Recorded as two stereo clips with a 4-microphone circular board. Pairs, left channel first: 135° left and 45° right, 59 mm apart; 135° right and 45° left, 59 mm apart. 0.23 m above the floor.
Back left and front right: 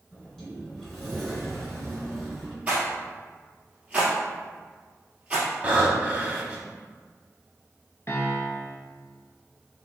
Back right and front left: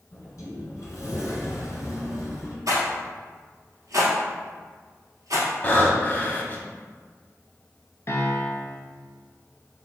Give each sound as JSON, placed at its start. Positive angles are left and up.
{"t": 0.1, "sound": "a sliding door", "azimuth_deg": -145, "distance_m": 1.9}
{"t": 2.7, "sound": "a rattle", "azimuth_deg": 25, "distance_m": 1.7}
{"t": 5.6, "sound": "breathing", "azimuth_deg": -100, "distance_m": 0.8}
{"t": 8.1, "sound": "a piano", "azimuth_deg": 180, "distance_m": 0.7}